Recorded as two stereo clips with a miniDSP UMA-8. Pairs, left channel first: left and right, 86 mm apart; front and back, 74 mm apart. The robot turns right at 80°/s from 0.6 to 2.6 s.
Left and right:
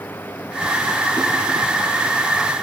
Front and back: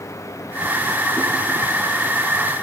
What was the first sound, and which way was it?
Only background noise.